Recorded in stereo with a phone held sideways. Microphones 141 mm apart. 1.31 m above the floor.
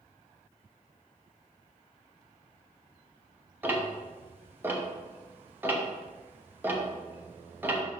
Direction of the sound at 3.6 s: 15° right (ahead or behind).